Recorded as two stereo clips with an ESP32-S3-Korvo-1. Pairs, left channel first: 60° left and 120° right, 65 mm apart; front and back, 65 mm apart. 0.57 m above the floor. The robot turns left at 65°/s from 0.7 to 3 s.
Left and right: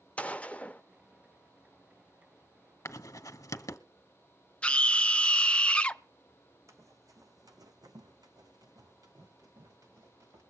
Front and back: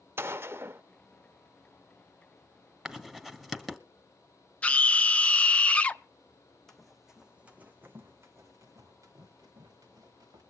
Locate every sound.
0.2 s a gunshot: 130° left, 0.5 m; by 0.8 s 125° left, 0.5 m
2.9 s writing: 105° left, 1.1 m; by 3.8 s 95° left, 1.1 m
4.6 s a scream: 25° left, 0.6 m
6.7 s running footsteps: 80° right, 1.5 m; by 10.4 s 155° right, 3.5 m